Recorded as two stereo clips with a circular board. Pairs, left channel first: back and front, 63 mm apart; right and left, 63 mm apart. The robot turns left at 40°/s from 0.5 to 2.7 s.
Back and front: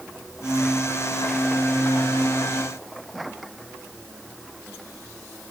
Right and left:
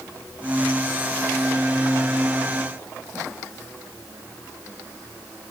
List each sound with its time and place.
Only background noise.